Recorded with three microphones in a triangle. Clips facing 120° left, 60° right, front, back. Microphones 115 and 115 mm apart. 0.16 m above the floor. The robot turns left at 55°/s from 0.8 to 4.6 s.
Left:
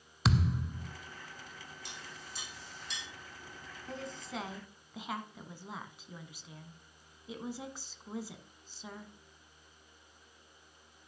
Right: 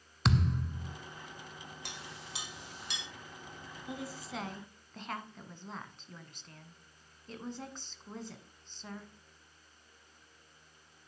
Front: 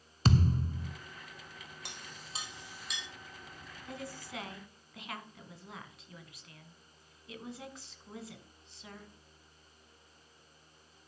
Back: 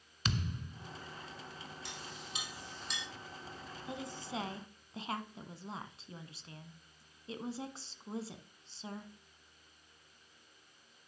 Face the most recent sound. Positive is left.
turn(degrees=-165)